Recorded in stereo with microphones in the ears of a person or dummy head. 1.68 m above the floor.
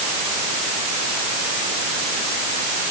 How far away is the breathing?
No breathing in this recording.